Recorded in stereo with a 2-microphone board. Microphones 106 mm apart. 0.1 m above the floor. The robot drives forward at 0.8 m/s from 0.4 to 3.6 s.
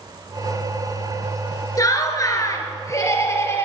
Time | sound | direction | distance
1.8 | laughter | 35° left (ahead or behind) | 1.4 m